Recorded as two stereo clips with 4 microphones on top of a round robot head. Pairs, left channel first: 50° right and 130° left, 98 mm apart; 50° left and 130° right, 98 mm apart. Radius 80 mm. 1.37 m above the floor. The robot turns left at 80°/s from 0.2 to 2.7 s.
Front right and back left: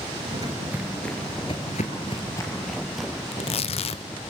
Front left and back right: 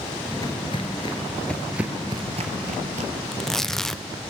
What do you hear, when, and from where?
0.3 s footsteps: 110° left, 1.4 m; by 3.2 s 145° right, 2 m
3.3 s tearing paper: 35° right, 0.7 m